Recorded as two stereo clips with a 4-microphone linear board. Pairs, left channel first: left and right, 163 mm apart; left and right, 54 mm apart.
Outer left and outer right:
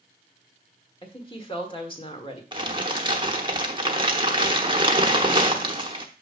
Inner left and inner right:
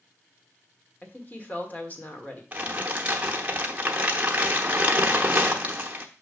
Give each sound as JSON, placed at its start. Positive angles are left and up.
{"t": 1.0, "sound": "a woman speaking", "side_deg": 30, "distance_m": 1.4}
{"t": 2.5, "sound": "crumpling", "side_deg": -30, "distance_m": 0.9}